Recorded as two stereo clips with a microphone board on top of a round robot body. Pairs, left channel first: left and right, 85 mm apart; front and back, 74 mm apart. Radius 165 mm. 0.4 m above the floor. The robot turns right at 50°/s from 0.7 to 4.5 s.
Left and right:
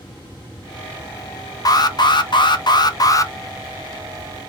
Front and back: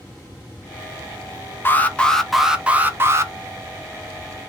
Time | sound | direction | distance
1.6 | an alarm | 55° left | 0.6 m